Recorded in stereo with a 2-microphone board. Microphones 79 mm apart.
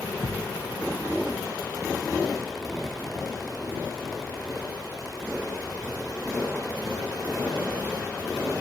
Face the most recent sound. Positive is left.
turn(degrees=-70)  # may be behind; listen again after turning